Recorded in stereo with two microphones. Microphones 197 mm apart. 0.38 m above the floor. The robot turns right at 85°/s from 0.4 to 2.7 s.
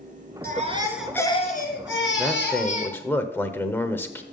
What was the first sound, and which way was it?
A baby crying, 50° right.